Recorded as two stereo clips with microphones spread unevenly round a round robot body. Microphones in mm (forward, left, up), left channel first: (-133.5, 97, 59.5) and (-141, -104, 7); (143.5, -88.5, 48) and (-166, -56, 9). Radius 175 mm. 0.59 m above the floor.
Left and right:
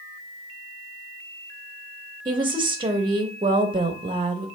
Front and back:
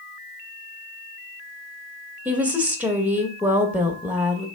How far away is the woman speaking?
About 0.8 m.